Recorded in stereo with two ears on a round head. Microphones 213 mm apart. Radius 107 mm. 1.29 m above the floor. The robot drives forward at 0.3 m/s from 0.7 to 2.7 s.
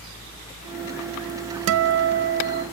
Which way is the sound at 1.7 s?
60° right (ahead or behind).